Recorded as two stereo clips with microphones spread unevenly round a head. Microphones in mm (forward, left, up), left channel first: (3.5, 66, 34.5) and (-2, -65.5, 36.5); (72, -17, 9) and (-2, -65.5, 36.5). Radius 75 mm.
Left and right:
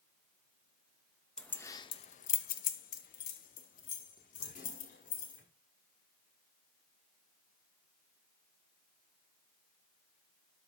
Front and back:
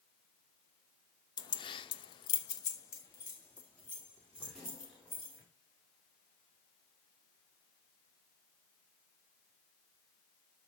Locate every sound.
1.4 s keys jangling: 5° left, 0.9 m; by 5.4 s 120° left, 3.5 m